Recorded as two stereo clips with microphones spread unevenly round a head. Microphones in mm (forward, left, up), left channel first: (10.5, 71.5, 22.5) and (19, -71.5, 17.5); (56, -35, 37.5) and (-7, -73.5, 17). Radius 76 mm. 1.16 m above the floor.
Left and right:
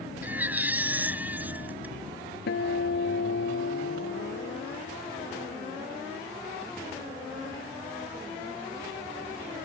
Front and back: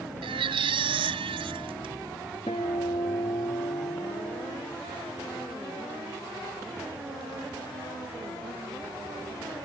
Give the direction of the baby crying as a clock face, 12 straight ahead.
6 o'clock.